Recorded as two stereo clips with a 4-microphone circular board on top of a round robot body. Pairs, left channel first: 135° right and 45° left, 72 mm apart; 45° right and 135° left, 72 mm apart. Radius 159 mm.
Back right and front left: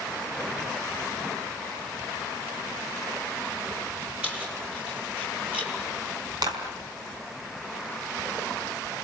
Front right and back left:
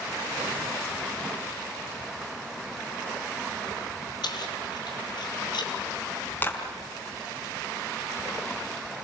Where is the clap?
20° left, 5 m.